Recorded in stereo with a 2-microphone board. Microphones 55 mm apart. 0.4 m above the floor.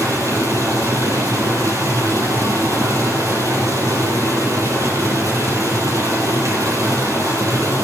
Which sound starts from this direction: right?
Running water, at 0.0 s.